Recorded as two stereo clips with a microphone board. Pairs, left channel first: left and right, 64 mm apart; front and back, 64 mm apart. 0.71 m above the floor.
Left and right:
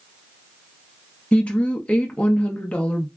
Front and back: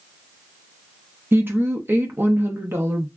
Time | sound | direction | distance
1.3 | a woman speaking | 155° left | 0.6 m